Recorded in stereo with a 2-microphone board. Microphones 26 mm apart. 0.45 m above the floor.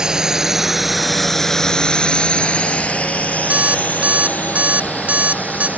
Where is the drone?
25° right (ahead or behind); by 5.8 s 80° left.